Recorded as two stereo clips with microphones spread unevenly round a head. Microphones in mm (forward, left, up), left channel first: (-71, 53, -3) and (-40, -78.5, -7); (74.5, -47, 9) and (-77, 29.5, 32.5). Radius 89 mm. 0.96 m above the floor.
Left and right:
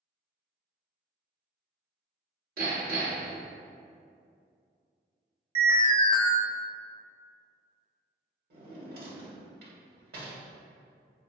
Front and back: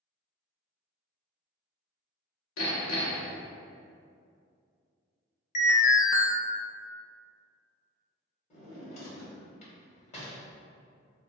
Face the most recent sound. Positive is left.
turn(degrees=-80)